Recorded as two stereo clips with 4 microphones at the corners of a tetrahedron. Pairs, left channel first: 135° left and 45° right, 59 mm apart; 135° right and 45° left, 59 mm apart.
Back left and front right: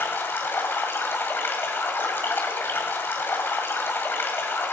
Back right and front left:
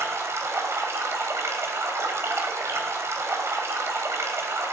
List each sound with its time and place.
0.0 s running water: 85° left, 2 m